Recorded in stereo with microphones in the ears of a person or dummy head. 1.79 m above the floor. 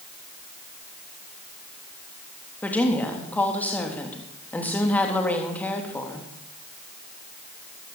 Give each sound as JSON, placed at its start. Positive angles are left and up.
{"t": 2.6, "sound": "a woman speaking", "side_deg": 10, "distance_m": 3.5}